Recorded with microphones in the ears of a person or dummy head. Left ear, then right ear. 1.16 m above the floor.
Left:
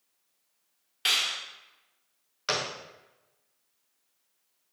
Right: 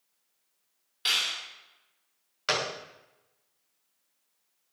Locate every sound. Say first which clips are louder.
1.1 s a clap: left 1 dB; 20° left (ahead or behind), 3.5 m
2.5 s a gunshot: right 1 dB; 10° right (ahead or behind), 0.8 m